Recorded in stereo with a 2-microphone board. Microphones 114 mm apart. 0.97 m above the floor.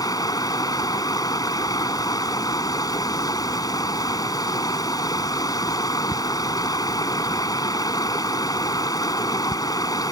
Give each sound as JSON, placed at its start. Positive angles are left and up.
{"t": 0.0, "sound": "running water", "side_deg": 35}